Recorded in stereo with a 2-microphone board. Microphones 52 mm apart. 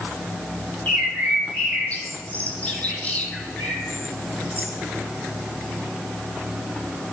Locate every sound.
0.9 s a bird: 25° left (ahead or behind), 1.2 m